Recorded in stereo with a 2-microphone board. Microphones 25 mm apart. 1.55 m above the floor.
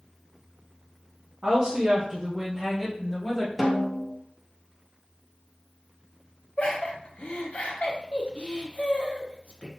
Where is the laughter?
55° left (ahead or behind), 1.1 m.